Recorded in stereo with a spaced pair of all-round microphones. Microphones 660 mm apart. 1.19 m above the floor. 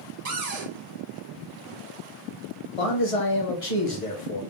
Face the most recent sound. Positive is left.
turn(degrees=60)  # may be behind; listen again after turning